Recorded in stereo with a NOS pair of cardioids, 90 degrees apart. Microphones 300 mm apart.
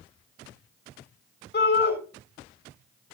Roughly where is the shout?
Ahead left.